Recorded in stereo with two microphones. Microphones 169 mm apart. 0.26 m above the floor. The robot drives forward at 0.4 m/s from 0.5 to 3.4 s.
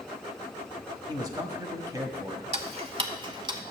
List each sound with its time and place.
1.1 s a man speaking: 25° right (ahead or behind), 1.0 m; by 2.4 s 20° right (ahead or behind), 1.3 m
2.5 s ticking: 40° right (ahead or behind), 0.7 m; by 3.6 s 30° right (ahead or behind), 0.9 m